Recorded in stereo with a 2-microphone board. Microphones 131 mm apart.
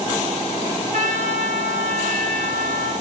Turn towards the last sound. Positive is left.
turn(degrees=-70)  # may be behind; listen again after turning